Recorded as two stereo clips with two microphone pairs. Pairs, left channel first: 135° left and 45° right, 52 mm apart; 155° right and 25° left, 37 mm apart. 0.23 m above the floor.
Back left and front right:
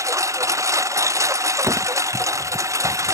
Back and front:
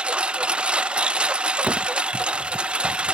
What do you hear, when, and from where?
0.0 s a lawn mower: 35° right
1.6 s a door slam: 25° right